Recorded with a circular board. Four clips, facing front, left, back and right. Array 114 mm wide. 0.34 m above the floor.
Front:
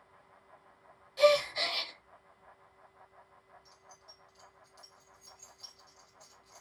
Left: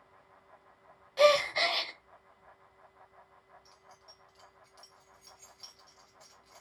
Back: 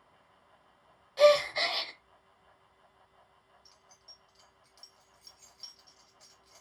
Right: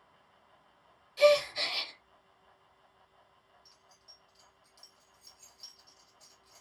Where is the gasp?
120° left, 0.6 m.